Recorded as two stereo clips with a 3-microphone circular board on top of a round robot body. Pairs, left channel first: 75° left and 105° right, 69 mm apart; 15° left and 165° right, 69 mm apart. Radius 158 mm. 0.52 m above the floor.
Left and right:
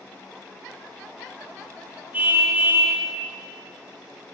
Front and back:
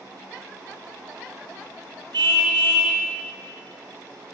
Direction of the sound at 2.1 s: 170° right.